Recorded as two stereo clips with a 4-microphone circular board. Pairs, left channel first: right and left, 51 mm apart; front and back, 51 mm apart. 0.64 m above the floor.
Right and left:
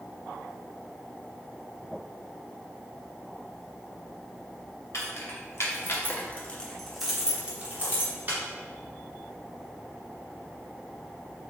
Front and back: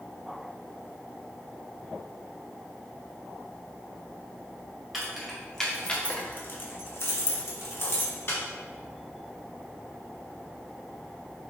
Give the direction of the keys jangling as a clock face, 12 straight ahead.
3 o'clock.